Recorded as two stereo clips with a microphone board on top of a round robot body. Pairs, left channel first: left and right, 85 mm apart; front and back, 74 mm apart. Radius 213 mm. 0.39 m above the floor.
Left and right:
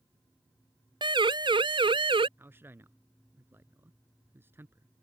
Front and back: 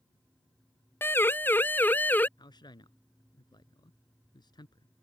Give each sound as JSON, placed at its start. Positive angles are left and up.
{"t": 1.0, "sound": "a siren", "azimuth_deg": -60}
{"t": 2.4, "sound": "a man speaking", "azimuth_deg": -25}